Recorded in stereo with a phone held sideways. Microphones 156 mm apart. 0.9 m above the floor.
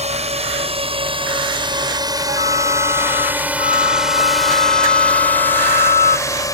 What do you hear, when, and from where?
0.0 s a drone: 45° right (ahead or behind); by 6.5 s 20° left (ahead or behind)
2.3 s a flute: 65° right (ahead or behind)